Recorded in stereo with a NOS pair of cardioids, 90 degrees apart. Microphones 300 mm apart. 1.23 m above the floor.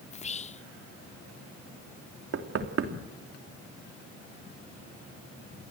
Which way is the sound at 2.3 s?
50° right.